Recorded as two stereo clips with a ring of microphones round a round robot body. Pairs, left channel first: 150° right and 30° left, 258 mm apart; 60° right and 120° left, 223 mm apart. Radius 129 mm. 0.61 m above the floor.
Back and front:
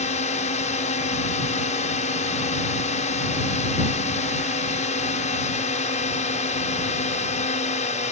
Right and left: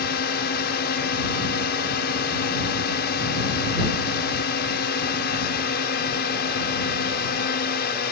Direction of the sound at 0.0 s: 95° right.